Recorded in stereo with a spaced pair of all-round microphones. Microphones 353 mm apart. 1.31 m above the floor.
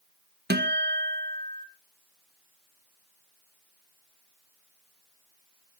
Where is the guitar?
30° right (ahead or behind), 1.0 m.